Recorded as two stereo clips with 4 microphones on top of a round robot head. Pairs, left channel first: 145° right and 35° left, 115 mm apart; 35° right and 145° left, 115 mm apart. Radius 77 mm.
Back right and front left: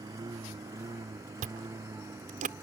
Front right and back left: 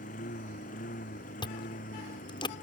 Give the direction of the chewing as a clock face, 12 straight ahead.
11 o'clock.